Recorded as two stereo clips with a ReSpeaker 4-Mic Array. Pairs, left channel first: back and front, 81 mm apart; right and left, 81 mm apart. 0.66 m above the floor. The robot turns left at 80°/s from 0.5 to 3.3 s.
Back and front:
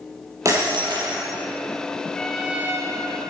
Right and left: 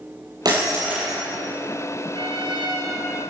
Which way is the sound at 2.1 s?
105° left.